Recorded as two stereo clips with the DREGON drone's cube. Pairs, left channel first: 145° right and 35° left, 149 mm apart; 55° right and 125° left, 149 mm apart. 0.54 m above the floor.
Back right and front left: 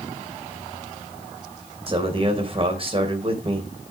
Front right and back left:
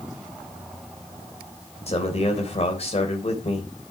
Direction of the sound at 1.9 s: 15° right.